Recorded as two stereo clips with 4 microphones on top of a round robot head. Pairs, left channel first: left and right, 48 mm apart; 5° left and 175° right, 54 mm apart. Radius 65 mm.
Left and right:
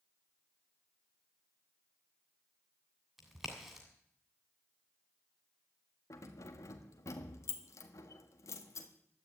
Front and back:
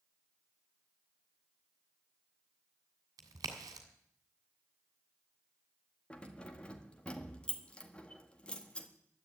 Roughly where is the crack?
Behind.